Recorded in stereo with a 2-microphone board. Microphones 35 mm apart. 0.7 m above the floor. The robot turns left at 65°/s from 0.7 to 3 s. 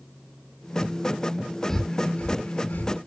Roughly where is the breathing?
Centre.